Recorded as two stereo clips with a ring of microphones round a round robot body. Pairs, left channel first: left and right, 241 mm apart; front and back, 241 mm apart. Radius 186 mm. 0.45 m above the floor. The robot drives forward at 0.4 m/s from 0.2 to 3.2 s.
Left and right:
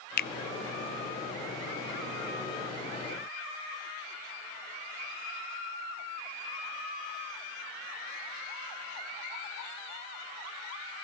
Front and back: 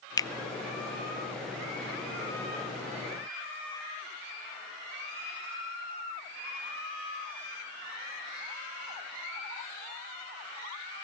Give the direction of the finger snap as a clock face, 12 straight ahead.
10 o'clock.